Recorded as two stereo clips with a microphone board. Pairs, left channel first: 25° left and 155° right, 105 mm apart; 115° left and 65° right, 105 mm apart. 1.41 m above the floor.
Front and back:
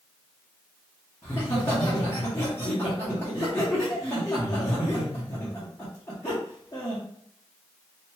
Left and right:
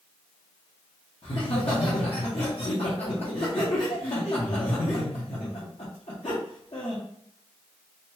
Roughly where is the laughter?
Left.